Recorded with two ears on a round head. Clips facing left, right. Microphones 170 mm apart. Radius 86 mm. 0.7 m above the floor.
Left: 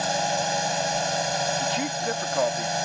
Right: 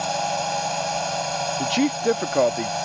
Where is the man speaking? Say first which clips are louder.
Right 7 dB; 50° right (ahead or behind).